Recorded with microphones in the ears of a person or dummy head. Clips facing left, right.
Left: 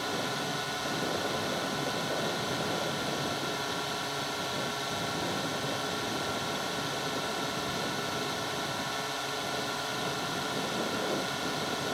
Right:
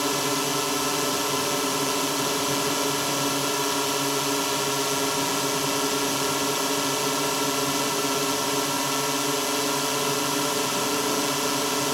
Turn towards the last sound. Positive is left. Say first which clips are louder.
# right 8 dB
turn(degrees=-70)  # may be behind; listen again after turning